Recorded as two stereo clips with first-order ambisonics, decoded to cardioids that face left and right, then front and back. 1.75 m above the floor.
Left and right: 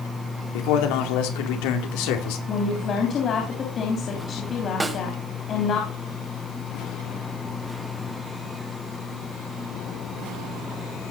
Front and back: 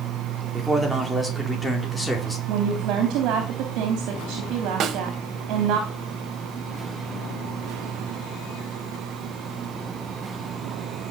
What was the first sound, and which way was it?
A man speaking, 95° left.